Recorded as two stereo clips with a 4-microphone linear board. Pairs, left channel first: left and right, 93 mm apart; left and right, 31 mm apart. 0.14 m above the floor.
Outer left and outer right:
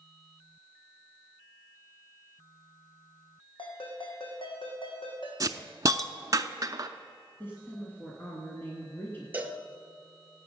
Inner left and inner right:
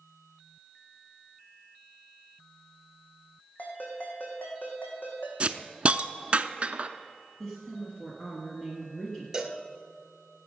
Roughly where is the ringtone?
Left.